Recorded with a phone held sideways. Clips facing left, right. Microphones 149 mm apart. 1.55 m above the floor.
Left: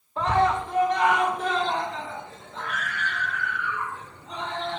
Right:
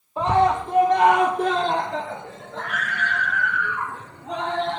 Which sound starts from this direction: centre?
A scream, at 0.2 s.